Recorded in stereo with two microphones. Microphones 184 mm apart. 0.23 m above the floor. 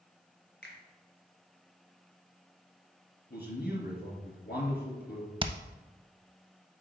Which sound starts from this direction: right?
Hammering, at 5.4 s.